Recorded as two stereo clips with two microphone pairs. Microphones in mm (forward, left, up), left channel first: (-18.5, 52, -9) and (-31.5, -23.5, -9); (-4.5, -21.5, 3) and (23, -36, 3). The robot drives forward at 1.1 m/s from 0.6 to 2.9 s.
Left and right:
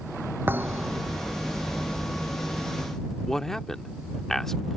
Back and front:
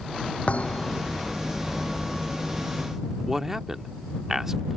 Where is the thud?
160° right; by 1.2 s 165° right.